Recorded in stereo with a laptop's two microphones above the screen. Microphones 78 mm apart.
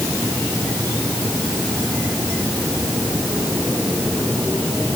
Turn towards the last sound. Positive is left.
No sound to turn to.